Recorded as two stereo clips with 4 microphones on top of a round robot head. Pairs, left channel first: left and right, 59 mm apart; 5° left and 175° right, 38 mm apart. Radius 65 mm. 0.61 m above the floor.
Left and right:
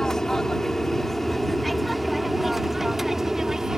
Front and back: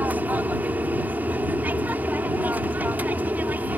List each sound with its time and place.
0.0 s an aircraft: 170° left; by 3.8 s 170° right